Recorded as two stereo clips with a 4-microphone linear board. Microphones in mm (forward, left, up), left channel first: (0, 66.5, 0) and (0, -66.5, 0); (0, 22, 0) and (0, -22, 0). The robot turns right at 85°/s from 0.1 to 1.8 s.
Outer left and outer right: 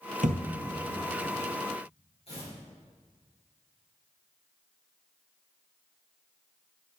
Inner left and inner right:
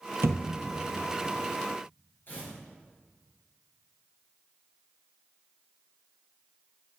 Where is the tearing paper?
50° left (ahead or behind), 4 m.